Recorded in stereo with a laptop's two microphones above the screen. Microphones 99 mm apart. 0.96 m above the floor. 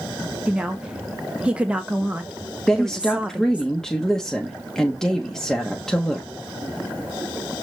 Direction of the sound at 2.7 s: 5° left (ahead or behind).